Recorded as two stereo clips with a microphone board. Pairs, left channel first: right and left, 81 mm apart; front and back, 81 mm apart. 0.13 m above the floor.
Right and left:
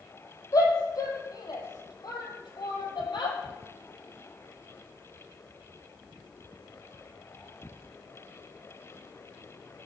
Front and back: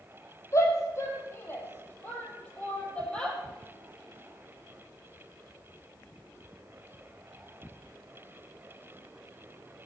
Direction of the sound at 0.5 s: 50° right.